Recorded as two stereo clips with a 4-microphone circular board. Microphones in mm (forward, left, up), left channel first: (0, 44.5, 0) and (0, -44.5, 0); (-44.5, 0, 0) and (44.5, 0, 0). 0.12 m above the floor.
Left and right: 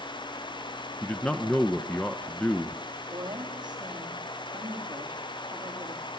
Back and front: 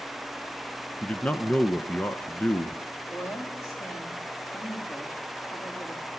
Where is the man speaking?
140° left, 1.1 m.